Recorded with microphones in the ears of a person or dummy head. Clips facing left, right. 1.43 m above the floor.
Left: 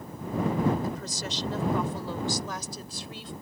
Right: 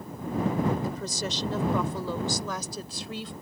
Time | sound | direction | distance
0.8 | a woman speaking | 80° right | ?